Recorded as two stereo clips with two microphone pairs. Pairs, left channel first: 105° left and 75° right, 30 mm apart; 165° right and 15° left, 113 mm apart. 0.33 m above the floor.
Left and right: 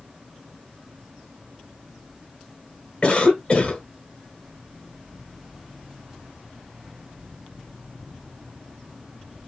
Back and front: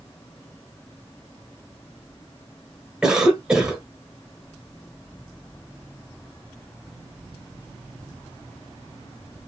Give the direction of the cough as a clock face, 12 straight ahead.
9 o'clock.